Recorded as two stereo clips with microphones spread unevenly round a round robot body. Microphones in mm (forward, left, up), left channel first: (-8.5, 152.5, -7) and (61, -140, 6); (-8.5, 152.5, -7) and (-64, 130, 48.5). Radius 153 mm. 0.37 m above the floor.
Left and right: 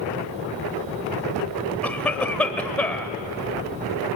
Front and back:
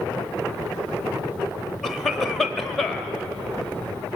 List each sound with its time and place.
1.8 s a cough: 20° left, 1.3 m